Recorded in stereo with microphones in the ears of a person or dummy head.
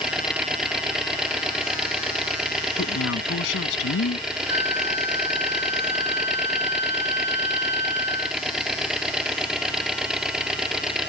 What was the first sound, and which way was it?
An engine running, 5° right (ahead or behind).